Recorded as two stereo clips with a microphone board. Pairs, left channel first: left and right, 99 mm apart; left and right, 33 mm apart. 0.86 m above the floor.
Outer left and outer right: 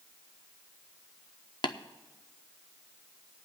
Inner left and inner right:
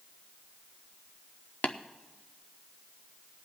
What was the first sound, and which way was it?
Tapping, 50° left (ahead or behind).